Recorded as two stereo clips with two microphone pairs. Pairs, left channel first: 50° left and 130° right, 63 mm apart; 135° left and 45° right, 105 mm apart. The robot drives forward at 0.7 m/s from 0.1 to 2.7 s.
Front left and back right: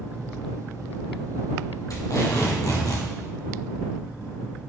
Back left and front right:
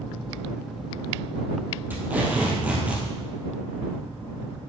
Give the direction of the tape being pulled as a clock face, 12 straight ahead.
11 o'clock.